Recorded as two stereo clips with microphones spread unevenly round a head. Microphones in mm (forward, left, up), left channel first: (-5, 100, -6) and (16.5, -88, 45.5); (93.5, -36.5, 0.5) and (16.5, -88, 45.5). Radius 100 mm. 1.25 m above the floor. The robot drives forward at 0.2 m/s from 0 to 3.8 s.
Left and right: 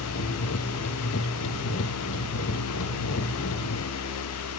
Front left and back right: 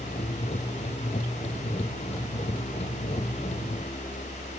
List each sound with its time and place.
Only background noise.